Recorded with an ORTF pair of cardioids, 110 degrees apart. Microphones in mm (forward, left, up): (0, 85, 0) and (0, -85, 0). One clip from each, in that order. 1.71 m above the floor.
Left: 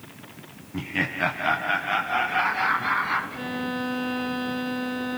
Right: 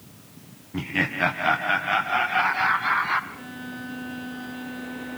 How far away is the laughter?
About 0.9 m.